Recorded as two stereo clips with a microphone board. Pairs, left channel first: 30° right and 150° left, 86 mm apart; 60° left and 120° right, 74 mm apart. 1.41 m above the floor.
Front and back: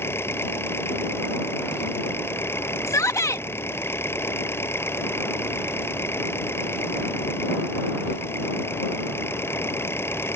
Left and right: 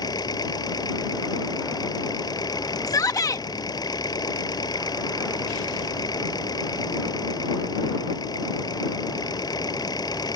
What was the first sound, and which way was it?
An engine running, 30° left.